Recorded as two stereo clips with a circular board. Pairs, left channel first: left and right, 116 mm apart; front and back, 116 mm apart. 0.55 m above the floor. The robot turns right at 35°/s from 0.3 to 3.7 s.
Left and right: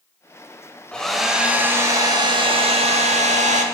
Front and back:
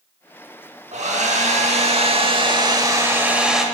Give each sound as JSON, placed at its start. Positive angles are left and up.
{"t": 0.9, "sound": "a hair dryer", "azimuth_deg": 170, "distance_m": 0.7}